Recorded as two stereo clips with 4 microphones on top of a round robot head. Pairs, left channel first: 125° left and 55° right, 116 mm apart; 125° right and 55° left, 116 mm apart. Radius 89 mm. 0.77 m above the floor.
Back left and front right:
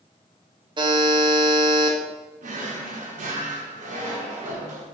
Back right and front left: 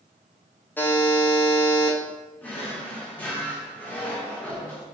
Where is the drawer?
50° right, 0.8 m.